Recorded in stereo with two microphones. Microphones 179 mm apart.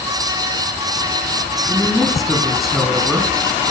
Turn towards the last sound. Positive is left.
turn(degrees=0)  # may be behind; listen again after turning